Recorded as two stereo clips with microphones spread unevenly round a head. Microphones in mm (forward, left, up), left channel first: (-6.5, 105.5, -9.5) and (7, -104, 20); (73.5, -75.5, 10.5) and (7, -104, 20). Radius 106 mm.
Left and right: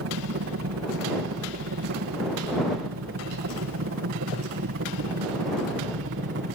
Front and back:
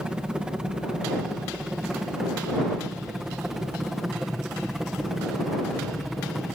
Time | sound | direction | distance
0.0 | a helicopter | 80° right | ?